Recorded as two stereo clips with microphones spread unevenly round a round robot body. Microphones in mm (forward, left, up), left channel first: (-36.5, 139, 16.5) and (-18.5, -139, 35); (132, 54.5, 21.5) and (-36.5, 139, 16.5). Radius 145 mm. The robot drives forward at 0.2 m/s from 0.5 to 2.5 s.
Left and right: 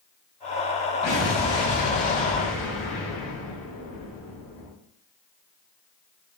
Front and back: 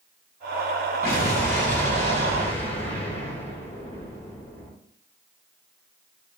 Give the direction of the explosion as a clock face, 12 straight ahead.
10 o'clock.